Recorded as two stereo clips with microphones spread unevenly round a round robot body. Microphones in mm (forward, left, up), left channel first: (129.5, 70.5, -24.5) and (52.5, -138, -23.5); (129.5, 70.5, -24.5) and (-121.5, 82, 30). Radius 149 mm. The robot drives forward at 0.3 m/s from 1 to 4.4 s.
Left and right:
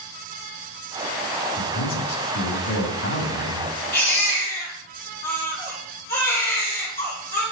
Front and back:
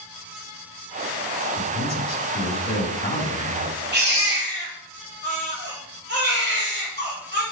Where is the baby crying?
130° left, 6.5 m.